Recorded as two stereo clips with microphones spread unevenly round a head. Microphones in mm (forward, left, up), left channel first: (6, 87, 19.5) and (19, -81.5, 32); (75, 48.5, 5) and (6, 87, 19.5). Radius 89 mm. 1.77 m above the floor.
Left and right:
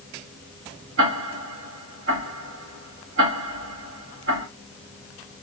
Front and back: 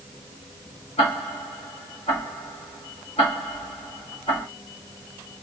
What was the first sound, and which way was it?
Ticking, 75° right.